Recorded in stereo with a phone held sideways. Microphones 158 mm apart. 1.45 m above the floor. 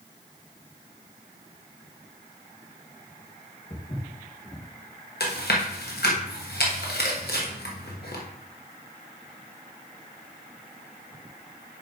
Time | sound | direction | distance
3.7 | footsteps | 45° left (ahead or behind) | 3.5 m
5.2 | chewing | 80° left | 1.3 m